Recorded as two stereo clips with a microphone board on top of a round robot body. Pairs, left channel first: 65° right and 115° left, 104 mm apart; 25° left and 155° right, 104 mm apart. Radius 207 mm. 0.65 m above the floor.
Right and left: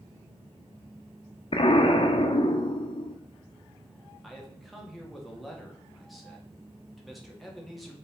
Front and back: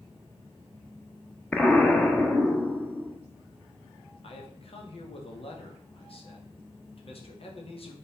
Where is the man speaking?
20° left, 1.9 m.